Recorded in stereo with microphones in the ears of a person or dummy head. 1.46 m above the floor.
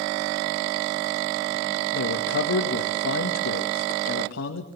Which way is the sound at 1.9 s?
90° left.